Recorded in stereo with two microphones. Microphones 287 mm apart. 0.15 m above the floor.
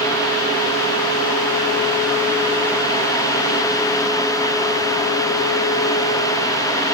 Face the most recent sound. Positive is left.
No sound to turn to.